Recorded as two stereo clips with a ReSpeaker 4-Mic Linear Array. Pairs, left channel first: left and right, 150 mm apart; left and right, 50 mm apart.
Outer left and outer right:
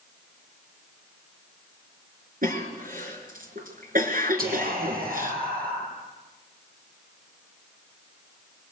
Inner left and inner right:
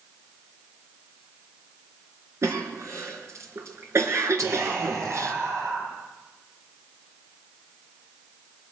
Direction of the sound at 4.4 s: 80° right.